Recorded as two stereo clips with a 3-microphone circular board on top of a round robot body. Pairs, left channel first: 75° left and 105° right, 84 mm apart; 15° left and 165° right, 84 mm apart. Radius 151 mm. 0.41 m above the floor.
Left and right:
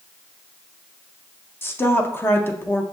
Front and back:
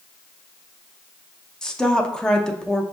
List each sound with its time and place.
1.6 s a woman speaking: 90° left, 0.8 m